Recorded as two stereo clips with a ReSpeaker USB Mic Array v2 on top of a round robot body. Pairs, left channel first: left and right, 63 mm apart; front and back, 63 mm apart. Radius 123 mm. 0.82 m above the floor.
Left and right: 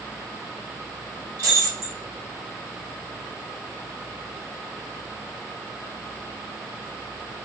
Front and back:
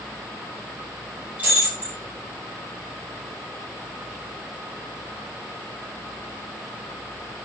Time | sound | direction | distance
1.4 | breaking glass | 115° right | 6 m